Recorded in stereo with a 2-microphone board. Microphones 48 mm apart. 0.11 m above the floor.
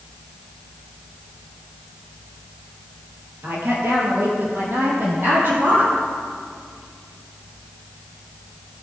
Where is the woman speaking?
55° right (ahead or behind), 2.5 m.